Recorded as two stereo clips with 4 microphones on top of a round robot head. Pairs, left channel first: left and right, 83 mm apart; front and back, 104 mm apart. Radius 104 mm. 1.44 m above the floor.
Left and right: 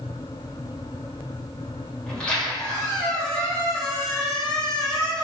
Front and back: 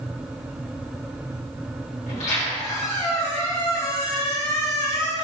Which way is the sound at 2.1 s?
10° left.